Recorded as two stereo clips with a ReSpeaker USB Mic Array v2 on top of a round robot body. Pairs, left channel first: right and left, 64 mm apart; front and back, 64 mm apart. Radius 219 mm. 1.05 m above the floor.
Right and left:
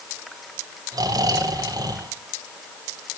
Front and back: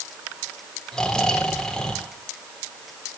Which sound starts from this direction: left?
Snoring, at 0.9 s.